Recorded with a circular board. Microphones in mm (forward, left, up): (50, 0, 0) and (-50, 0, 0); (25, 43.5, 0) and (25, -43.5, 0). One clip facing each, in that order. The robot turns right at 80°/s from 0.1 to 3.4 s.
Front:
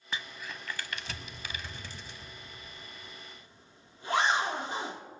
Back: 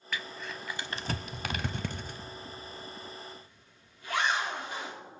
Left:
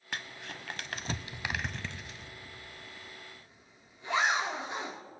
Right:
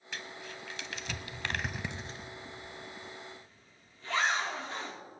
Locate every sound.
0.1 s crumpling: 60° left, 0.6 m; by 2.3 s 125° right, 0.6 m
2.6 s a zipper: 30° right, 1.2 m; by 5.0 s 30° left, 1.2 m